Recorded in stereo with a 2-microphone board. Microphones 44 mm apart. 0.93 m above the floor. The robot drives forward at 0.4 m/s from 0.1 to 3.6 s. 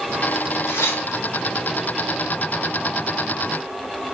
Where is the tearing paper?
65° left (ahead or behind), 0.7 m; by 1.4 s 55° left (ahead or behind), 0.7 m.